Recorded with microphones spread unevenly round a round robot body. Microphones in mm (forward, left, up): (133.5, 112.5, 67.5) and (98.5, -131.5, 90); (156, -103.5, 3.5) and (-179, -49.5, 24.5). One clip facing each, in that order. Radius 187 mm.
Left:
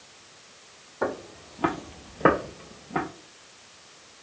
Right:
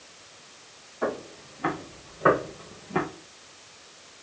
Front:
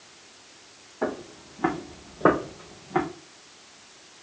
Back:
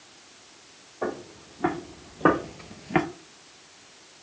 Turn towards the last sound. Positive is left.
turn(degrees=-170)